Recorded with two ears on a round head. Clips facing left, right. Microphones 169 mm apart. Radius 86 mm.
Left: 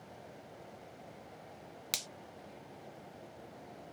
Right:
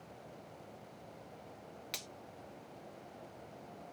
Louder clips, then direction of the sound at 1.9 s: Left 2 dB; 60° left (ahead or behind).